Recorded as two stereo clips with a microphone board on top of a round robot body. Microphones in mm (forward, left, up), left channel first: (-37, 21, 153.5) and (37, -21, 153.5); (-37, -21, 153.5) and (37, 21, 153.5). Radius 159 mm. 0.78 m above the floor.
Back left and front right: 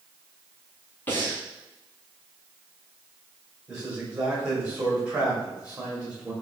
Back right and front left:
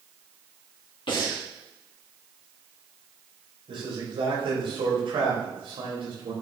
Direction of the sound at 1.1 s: 145° right.